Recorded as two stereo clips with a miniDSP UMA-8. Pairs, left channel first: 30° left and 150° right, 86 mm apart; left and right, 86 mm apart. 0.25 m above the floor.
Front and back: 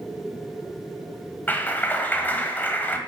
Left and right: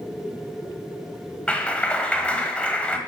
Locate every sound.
1.5 s a clap: 35° left, 0.8 m